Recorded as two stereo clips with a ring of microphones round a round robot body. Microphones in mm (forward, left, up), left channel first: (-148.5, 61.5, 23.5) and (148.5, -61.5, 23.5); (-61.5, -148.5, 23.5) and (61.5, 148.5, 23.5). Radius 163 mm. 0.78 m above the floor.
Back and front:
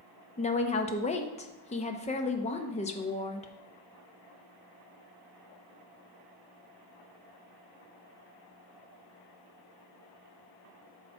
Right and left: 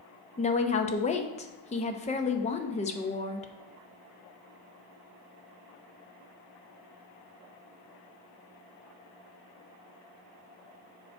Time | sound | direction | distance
0.4 | a woman speaking | 160° right | 0.7 m